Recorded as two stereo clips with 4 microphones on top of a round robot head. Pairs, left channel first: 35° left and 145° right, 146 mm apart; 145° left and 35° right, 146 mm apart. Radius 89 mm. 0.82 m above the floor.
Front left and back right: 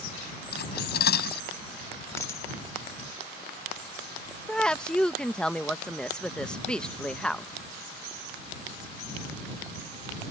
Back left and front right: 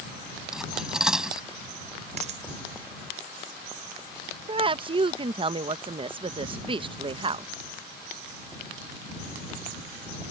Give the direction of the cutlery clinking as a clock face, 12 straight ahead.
10 o'clock.